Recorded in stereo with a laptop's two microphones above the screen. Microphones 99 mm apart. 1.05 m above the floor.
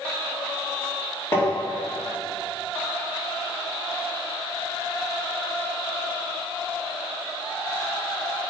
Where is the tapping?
25° left (ahead or behind), 2 m.